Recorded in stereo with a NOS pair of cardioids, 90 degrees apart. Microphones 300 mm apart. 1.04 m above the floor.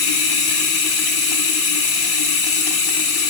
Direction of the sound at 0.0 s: 60° left.